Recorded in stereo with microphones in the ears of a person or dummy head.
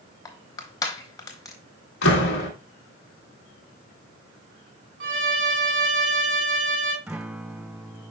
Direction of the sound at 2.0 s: 60° left (ahead or behind).